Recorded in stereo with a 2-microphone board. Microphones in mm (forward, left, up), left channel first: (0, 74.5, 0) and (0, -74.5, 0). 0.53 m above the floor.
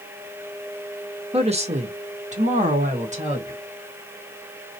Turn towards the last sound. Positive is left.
turn(degrees=-45)  # may be behind; listen again after turning